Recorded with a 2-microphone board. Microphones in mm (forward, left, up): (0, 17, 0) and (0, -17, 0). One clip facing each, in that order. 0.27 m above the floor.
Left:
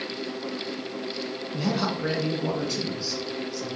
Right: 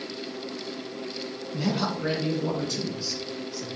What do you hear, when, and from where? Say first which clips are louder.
1.5 s a man speaking: even; 10° left (ahead or behind), 2.5 m; by 3.7 s 20° left (ahead or behind), 3.5 m